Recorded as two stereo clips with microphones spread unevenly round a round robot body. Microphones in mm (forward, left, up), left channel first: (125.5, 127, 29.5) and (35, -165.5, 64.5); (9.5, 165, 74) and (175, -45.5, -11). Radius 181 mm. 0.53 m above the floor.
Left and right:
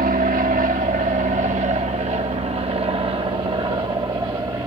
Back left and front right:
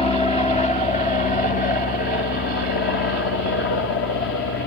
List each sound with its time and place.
0.0 s an aircraft: 150° right; by 4.7 s 175° left